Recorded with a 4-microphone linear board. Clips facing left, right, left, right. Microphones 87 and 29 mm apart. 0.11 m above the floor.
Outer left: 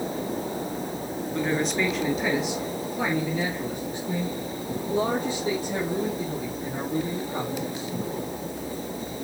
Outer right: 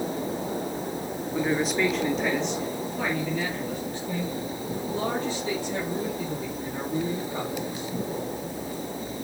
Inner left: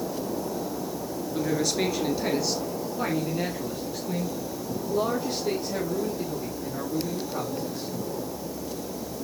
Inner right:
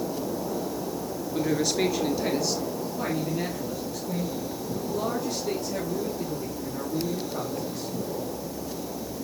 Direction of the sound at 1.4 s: 5° right (ahead or behind).